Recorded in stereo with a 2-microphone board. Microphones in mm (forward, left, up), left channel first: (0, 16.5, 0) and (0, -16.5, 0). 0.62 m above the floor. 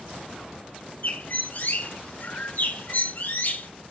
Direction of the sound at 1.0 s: 60° left (ahead or behind).